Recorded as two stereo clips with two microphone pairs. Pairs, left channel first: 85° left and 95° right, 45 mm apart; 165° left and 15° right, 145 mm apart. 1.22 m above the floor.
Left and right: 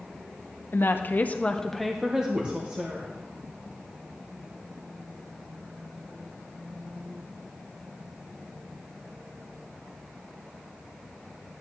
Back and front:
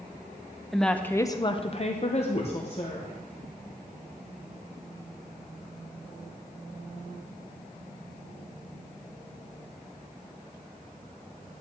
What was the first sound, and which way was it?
A woman speaking, 80° left.